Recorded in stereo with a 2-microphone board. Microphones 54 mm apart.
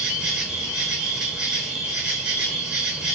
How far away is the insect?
About 1.0 m.